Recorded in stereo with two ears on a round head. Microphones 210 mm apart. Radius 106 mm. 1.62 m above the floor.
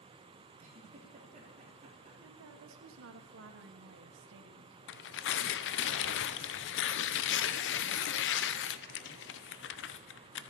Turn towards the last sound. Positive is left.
turn(degrees=50)  # may be behind; listen again after turning